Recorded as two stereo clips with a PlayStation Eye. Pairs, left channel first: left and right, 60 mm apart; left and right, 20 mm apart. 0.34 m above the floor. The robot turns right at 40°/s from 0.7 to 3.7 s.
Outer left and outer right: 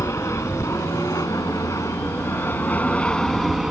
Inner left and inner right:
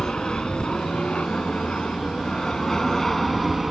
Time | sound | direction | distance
0.0 | an aircraft | 55° left (ahead or behind) | ?